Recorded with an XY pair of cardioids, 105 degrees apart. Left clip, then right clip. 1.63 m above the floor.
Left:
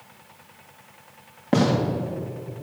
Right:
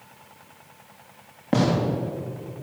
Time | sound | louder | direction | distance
1.5 | a gunshot | left 1 dB | straight ahead | 3 m